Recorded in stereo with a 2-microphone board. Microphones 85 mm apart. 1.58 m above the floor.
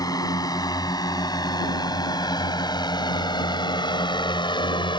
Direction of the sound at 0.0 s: 50° left (ahead or behind).